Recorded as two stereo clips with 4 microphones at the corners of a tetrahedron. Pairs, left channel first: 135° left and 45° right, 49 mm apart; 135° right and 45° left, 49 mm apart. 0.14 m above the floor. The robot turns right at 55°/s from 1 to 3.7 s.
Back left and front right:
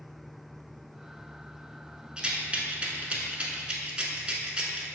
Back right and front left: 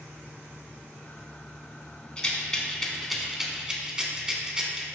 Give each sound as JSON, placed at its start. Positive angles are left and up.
{"t": 2.2, "sound": "a rattle", "azimuth_deg": -90, "distance_m": 0.6}